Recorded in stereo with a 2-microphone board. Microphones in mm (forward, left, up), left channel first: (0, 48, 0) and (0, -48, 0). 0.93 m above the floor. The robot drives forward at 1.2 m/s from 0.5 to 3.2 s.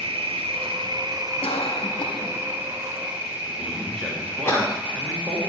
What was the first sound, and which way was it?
An insect, 75° right (ahead or behind).